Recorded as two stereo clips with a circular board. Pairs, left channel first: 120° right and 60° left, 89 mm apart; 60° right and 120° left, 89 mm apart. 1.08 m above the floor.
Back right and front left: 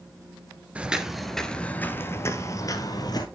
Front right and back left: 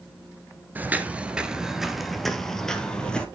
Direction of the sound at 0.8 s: 110° left.